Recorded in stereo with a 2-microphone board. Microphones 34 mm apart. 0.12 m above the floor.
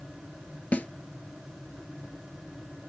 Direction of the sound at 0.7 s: 50° left (ahead or behind).